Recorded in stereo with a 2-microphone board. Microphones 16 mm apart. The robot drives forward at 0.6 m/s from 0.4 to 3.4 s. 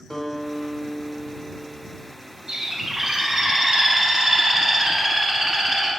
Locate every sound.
0.1 s a guitar: 45° left (ahead or behind), 1.1 m; by 2.1 s 25° left (ahead or behind), 1.8 m
2.5 s a bird: 50° right (ahead or behind), 0.6 m; by 5.9 s 25° right (ahead or behind), 1.1 m